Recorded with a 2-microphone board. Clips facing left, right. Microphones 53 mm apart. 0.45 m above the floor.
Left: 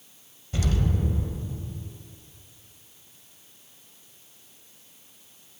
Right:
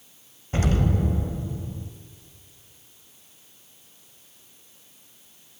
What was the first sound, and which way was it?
An explosion, 45° right (ahead or behind).